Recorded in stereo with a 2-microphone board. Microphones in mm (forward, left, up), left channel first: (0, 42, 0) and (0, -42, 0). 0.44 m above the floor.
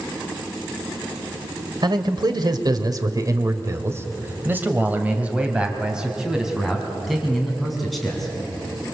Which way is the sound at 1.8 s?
55° right (ahead or behind).